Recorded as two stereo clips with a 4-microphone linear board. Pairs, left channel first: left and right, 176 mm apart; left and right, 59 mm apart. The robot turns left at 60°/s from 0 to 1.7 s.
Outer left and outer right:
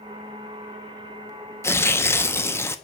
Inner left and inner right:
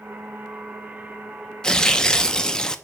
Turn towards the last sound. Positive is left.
turn(degrees=15)  # may be behind; listen again after turning